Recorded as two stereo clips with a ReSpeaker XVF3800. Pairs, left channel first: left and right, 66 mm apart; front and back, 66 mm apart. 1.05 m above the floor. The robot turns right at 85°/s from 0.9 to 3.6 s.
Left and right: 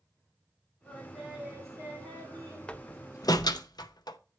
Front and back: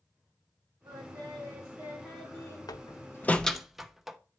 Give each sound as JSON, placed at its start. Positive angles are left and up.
{"t": 0.8, "sound": "singing", "azimuth_deg": 170, "distance_m": 3.0}
{"t": 2.7, "sound": "a door slam", "azimuth_deg": 15, "distance_m": 0.5}